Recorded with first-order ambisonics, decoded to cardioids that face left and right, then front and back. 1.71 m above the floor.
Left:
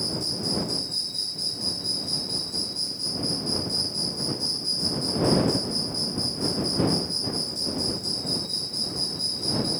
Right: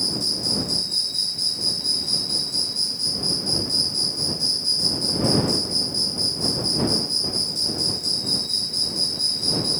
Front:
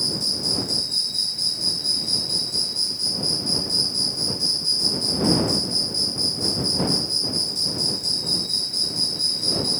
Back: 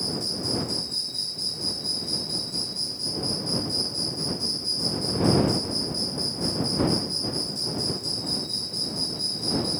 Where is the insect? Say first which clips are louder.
Right 5 dB, front 5 dB; 40° right.